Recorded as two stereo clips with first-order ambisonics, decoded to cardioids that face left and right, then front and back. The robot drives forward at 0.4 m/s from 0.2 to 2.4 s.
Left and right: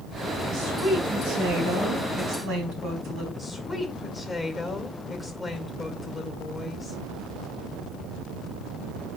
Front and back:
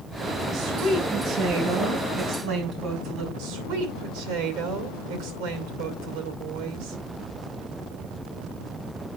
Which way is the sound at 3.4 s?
175° right.